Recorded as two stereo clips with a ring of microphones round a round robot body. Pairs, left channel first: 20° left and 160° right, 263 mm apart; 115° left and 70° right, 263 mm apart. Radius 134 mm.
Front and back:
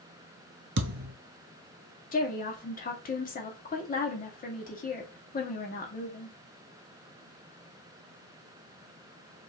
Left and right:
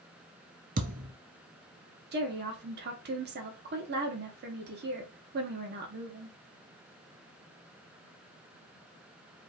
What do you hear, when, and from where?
0.8 s a thud: 120° right, 0.9 m
2.1 s a woman speaking: 25° right, 1.1 m